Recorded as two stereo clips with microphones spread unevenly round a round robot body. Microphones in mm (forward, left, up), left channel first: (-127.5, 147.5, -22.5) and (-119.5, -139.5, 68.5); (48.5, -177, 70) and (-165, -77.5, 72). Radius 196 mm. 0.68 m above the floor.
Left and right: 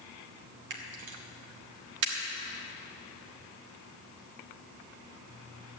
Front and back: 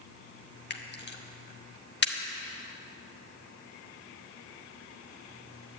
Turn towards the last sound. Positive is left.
turn(degrees=-55)